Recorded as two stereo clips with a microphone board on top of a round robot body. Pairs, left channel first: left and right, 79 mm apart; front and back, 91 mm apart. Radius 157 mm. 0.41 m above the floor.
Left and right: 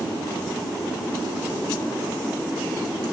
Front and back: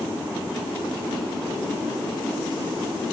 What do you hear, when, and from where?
Only background noise.